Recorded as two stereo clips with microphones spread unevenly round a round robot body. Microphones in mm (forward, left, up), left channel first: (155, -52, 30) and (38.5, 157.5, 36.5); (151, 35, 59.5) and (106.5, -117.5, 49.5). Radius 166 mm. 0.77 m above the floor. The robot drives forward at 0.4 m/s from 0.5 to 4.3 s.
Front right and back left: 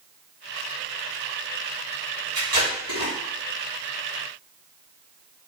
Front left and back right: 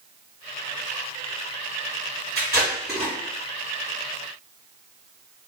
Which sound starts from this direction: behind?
Tape being pulled, at 2.4 s.